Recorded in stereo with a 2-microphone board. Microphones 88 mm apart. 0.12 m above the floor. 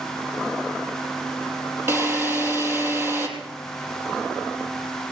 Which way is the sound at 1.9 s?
25° right (ahead or behind).